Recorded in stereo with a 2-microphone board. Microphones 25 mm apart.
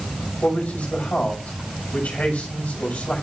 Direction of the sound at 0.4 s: 90° left.